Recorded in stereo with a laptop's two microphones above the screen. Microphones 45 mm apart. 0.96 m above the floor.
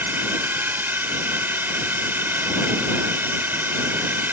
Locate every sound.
0.0 s a drone: 50° right (ahead or behind)